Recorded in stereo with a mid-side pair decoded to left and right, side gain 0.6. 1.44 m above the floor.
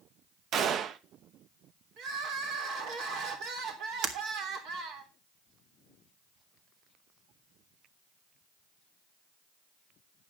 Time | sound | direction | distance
0.5 | a gunshot | 50° right | 0.9 m
2.0 | crying | 65° right | 3.5 m
4.0 | breaking glass | 60° right | 2.5 m